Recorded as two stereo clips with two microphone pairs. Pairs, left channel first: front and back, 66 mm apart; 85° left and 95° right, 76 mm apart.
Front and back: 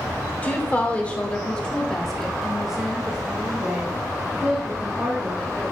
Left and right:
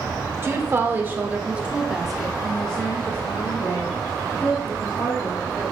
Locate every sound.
0.4 s a woman speaking: 55° right, 1.3 m; by 5.7 s 125° left, 2 m